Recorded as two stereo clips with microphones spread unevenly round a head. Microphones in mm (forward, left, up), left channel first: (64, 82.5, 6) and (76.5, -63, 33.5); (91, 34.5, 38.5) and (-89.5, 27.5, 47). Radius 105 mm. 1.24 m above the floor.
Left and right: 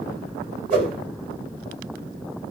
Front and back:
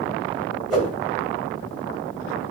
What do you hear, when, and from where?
0.7 s a whoosh: 95° right, 1.6 m